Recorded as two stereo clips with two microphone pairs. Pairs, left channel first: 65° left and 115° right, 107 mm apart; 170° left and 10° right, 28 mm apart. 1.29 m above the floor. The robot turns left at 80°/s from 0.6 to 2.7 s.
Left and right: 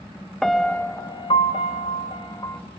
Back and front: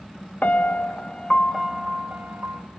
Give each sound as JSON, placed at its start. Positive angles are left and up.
{"t": 0.4, "sound": "a piano", "azimuth_deg": 155, "distance_m": 0.8}